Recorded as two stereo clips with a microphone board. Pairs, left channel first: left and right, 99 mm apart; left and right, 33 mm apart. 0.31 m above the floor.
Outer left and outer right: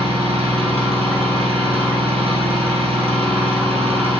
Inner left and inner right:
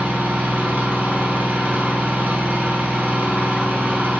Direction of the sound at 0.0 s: 80° right.